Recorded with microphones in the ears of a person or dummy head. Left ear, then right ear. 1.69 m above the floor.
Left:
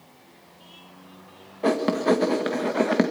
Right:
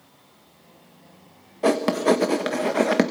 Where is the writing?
15° right (ahead or behind), 1.5 m.